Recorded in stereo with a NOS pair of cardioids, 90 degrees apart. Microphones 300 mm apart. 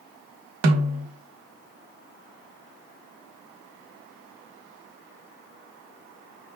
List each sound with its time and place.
0.6 s a snare drum: 65° right, 1.0 m